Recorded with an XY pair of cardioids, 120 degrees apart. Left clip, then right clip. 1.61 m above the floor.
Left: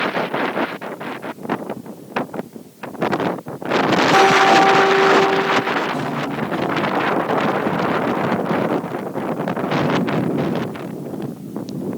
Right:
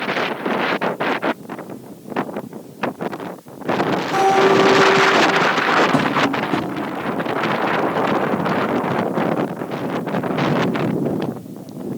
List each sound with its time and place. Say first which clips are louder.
4.1 s a guitar: left 1 dB; 25° left, 1.3 m
5.9 s tapping: right 6 dB; 70° right, 0.7 m